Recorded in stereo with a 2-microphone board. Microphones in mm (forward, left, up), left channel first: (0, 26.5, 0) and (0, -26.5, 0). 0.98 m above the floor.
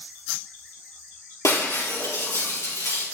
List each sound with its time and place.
1.4 s breaking glass: 80° left, 4.5 m